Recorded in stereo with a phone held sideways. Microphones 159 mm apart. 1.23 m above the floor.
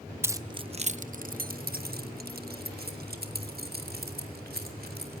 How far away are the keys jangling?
About 0.6 m.